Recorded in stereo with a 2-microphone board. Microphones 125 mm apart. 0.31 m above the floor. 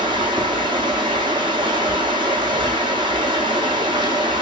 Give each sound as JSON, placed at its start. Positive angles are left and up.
{"t": 0.0, "sound": "running water", "side_deg": -35, "distance_m": 1.4}